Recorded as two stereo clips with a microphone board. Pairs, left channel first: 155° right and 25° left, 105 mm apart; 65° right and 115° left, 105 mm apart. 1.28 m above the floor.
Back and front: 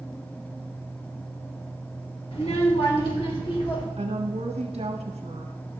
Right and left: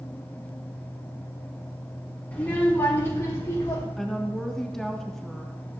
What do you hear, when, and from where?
2.3 s a child speaking: 145° right, 1.8 m; by 3.9 s 125° right, 3 m
4.0 s a woman speaking: 20° left, 1.3 m